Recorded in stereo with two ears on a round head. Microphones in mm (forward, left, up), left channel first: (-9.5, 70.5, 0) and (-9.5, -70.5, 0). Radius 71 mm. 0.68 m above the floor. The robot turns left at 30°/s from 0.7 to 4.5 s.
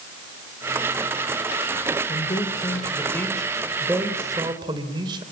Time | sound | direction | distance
2.1 | a man speaking | 45° left | 3 m